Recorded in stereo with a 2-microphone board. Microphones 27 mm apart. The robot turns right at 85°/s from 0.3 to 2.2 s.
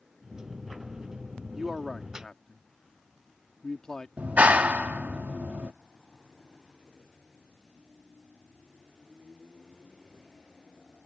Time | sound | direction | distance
1.6 | a man speaking | 20° right (ahead or behind) | ?
4.2 | a clap | 80° right | ?